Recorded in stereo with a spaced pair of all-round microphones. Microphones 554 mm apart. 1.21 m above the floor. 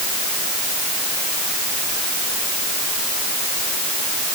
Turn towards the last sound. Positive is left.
No sound to turn to.